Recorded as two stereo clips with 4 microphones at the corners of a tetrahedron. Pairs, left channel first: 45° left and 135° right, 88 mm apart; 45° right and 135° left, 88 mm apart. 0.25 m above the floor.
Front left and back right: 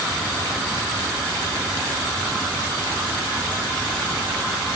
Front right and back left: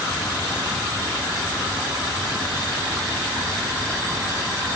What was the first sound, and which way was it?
Only background noise.